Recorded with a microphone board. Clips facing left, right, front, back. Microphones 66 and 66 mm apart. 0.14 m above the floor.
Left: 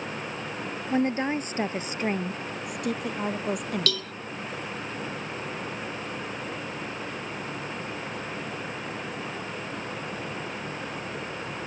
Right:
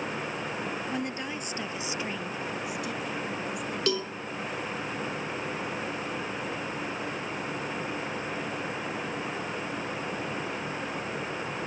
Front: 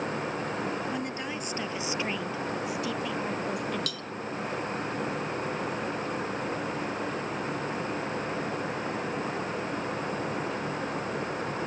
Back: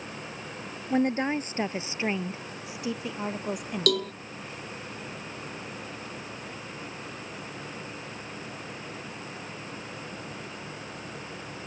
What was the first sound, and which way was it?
A woman speaking, 140° left.